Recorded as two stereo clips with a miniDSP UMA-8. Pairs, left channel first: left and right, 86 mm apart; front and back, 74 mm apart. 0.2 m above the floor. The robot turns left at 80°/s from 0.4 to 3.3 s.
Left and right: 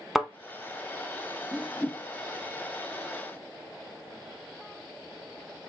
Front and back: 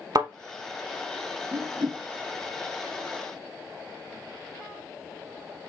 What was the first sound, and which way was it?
A thud, straight behind.